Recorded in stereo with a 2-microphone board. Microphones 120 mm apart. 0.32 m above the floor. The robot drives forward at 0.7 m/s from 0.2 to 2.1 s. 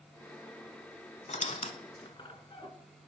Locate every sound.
1.3 s a squeak: 90° left, 0.6 m; by 2.7 s 45° left (ahead or behind), 0.9 m